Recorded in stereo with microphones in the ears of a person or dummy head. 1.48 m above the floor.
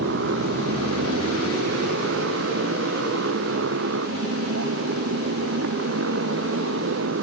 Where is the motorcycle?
65° right (ahead or behind); by 7.2 s 75° right (ahead or behind).